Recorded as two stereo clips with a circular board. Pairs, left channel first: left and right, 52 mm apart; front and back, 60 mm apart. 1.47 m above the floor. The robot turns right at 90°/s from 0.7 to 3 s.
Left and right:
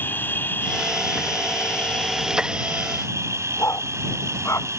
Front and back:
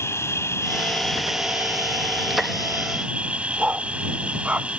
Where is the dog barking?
110° left.